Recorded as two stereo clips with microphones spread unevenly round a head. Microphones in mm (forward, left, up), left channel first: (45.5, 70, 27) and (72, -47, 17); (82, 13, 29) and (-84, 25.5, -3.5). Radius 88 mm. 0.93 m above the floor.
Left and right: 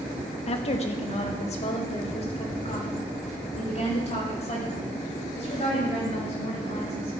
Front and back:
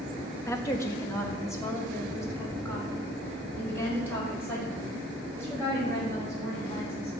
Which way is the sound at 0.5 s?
75° left.